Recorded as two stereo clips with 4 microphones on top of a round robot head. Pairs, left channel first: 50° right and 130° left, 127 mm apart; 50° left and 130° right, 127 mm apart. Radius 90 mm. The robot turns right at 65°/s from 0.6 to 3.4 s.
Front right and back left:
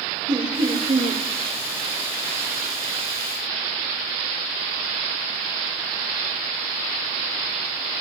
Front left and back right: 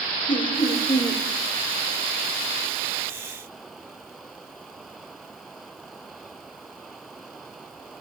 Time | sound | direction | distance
0.3 | laughter | 85° left | 2.5 m